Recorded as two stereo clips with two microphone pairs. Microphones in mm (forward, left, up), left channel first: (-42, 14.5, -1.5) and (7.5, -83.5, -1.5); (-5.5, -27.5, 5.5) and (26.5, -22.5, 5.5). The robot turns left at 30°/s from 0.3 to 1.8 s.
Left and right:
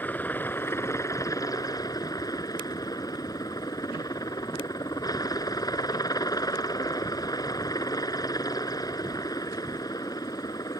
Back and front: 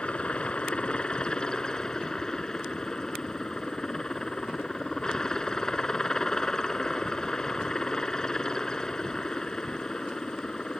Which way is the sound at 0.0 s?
Straight behind.